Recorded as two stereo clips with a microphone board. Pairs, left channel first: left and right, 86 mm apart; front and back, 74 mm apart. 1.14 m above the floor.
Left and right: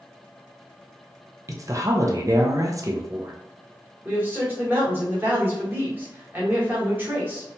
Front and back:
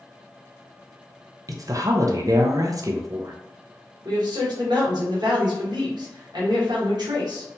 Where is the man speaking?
155° right, 1.2 m.